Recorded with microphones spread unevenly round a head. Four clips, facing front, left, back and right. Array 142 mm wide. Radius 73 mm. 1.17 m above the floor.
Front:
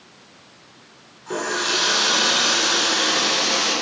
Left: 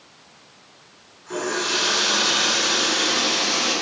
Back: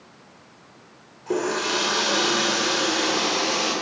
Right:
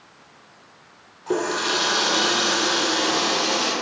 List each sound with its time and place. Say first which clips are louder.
1.3 s a running tap: right 3 dB, back 1 dB; 115° right, 2 m